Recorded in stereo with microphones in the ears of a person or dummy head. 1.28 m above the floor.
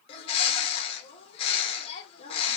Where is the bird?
35° left (ahead or behind), 0.5 m.